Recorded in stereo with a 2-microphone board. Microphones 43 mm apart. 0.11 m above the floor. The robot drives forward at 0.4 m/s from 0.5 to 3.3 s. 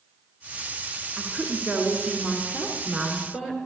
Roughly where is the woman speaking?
Centre.